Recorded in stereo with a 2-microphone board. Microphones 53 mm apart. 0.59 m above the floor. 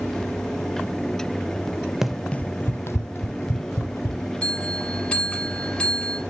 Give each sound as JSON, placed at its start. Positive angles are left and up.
{"t": 2.0, "sound": "running footsteps", "side_deg": -5, "distance_m": 0.6}
{"t": 4.4, "sound": "a bell", "side_deg": 15, "distance_m": 3.5}